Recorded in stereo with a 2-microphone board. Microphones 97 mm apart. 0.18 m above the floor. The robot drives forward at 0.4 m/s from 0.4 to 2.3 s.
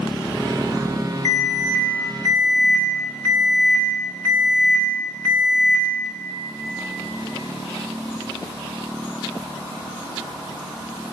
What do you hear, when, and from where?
1.2 s an alarm: 20° left (ahead or behind), 1.5 m